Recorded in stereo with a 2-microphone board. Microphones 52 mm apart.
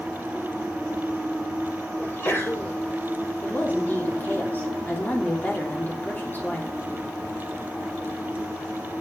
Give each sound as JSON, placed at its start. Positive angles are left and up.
{"t": 2.0, "sound": "a sneeze", "side_deg": 45, "distance_m": 4.0}
{"t": 3.4, "sound": "a woman speaking", "side_deg": 35, "distance_m": 3.0}